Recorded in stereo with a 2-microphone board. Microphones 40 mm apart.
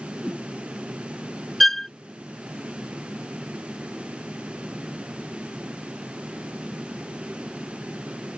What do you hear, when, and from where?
0.2 s a whoosh: 20° right (ahead or behind)
1.6 s a violin: 10° left (ahead or behind)